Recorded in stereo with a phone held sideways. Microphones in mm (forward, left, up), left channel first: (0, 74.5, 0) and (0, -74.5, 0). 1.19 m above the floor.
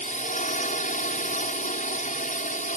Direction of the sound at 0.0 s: 60° left (ahead or behind).